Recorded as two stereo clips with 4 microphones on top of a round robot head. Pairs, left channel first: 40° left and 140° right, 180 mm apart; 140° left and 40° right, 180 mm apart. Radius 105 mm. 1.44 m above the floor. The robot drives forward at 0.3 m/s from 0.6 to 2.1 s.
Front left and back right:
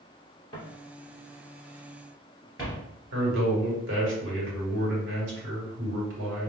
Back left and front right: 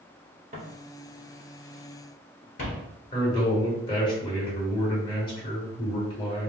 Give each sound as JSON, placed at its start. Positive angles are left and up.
{"t": 0.5, "sound": "footsteps", "azimuth_deg": -20, "distance_m": 1.6}
{"t": 3.1, "sound": "a man speaking", "azimuth_deg": -155, "distance_m": 1.4}